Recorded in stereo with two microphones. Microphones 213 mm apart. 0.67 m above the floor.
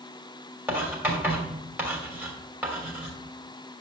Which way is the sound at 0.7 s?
10° right (ahead or behind).